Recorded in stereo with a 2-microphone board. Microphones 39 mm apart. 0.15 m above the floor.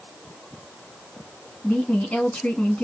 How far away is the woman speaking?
About 1.4 m.